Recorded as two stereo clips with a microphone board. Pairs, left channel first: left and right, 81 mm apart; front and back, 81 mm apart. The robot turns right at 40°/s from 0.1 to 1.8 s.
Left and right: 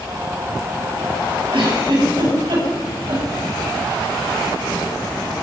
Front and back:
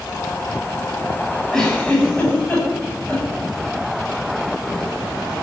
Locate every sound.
1.5 s a giggle: 85° right, 8 m; by 3.2 s 75° right, 8 m